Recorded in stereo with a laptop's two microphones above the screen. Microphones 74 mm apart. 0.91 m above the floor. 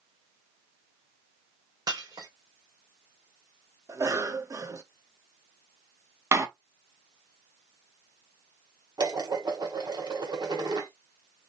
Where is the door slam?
40° right (ahead or behind), 0.9 m.